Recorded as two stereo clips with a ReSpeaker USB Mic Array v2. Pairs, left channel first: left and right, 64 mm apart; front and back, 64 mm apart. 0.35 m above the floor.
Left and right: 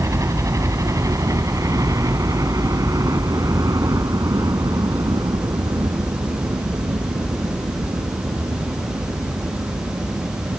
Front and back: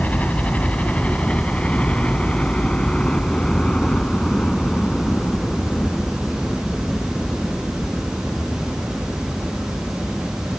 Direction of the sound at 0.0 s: 65° right.